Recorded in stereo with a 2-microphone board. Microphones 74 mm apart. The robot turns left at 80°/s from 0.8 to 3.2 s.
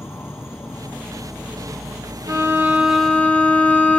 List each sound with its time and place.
0.0 s an insect: 35° left, 0.8 m; by 4.0 s 155° right, 0.8 m
2.3 s a violin: 125° right, 1.1 m; by 4.0 s 160° left, 1.1 m